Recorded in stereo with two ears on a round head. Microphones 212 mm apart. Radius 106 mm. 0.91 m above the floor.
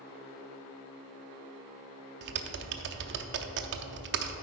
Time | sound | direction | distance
2.2 | typing on a keyboard | 50° right (ahead or behind) | 0.6 m